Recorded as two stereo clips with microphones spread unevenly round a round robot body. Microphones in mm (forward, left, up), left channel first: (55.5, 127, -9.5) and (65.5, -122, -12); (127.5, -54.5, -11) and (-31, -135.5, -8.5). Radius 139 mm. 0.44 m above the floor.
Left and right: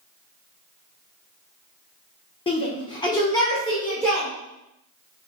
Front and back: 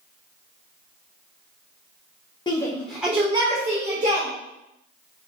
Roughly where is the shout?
Ahead left.